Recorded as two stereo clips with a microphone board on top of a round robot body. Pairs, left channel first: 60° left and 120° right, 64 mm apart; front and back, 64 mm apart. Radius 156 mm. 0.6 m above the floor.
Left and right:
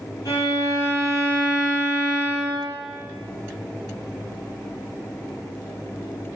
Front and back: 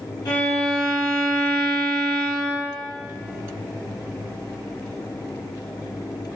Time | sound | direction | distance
0.2 | a violin | 25° left | 3 m